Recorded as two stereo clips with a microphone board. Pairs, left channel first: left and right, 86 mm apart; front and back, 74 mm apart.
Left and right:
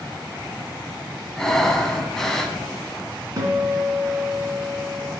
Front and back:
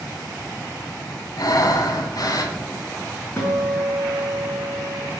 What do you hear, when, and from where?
1.4 s breathing: 5° left, 1.0 m
3.4 s a guitar: 50° right, 2.5 m